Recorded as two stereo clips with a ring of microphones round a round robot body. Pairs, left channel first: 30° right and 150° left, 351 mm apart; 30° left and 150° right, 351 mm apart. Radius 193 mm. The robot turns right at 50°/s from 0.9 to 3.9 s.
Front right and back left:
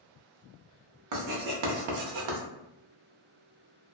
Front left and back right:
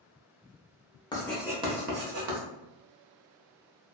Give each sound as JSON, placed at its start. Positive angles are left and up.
{"t": 1.1, "sound": "writing", "azimuth_deg": 110, "distance_m": 0.8}